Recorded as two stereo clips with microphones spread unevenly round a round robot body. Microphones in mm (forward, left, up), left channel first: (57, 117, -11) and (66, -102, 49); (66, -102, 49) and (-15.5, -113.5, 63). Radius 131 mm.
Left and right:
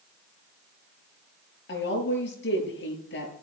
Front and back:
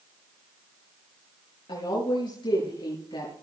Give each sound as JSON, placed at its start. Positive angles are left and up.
{"t": 1.7, "sound": "a woman speaking", "azimuth_deg": 55, "distance_m": 7.0}